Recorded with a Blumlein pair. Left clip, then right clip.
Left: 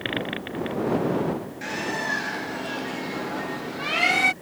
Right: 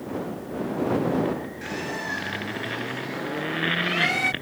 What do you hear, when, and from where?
1.6 s a bird: 10° left